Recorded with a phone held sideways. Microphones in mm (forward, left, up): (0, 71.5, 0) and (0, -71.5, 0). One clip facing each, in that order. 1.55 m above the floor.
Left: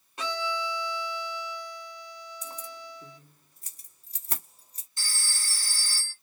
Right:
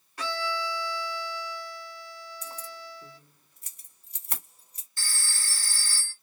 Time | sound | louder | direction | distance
0.2 | a violin | even | 20° left (ahead or behind) | 1.0 m
2.4 | keys jangling | even | 35° left (ahead or behind) | 2.0 m
5.0 | a phone ringing | right 1 dB | 15° left (ahead or behind) | 1.6 m